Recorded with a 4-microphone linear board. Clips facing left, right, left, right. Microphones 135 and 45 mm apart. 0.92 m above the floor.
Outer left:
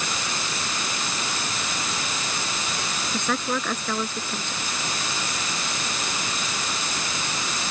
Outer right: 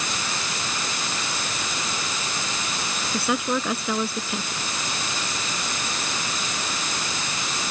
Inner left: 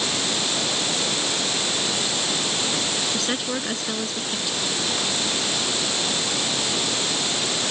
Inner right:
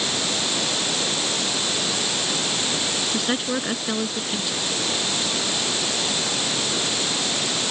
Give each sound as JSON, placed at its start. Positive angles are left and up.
{"t": 3.1, "sound": "a woman speaking", "side_deg": -10}